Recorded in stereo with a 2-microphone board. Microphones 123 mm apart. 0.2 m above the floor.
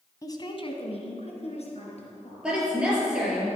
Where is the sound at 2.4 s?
10° right (ahead or behind), 4 m.